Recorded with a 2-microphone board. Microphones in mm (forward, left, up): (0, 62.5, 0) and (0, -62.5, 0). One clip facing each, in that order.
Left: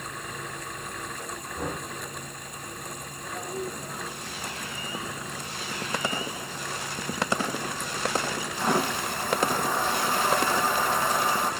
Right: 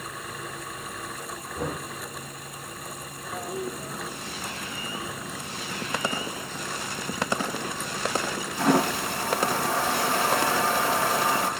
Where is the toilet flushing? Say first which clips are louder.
Right 2 dB; 75° right (ahead or behind), 2 m.